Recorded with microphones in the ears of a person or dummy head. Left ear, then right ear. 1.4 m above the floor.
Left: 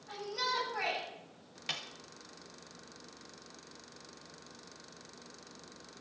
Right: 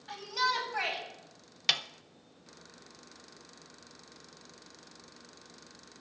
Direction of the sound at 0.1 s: 70° right (ahead or behind).